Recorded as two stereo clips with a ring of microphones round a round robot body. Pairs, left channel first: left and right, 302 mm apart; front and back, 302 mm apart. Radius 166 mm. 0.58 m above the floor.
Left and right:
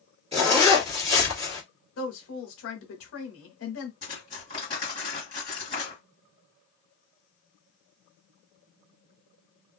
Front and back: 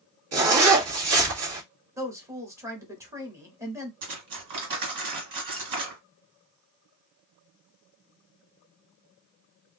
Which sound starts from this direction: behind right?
A zipper, at 0.3 s.